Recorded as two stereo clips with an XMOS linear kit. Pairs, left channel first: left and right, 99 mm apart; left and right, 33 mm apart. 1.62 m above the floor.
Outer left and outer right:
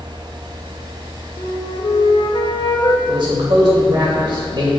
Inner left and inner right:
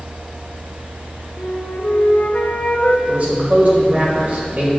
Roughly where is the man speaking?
Right.